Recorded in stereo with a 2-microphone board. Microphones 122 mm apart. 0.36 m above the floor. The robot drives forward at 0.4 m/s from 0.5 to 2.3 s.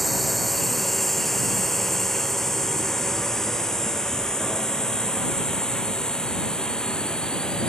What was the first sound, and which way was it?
A drone, centre (ahead or behind).